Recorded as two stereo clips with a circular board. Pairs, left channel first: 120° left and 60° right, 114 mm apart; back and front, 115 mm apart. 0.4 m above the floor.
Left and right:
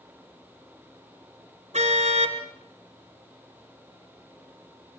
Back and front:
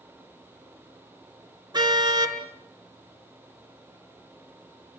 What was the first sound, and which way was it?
A car horn, 50° right.